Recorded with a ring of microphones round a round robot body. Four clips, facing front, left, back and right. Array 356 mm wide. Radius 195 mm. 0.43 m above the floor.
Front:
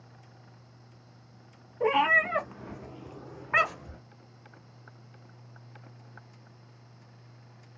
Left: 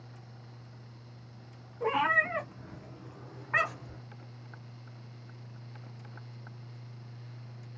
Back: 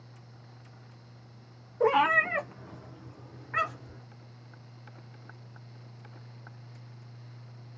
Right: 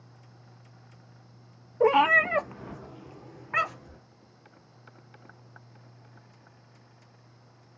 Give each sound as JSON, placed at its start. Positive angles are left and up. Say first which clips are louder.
{"t": 1.8, "sound": "a cat meowing", "louder": "right 8 dB, back 1 dB", "azimuth_deg": -105, "distance_m": 0.7}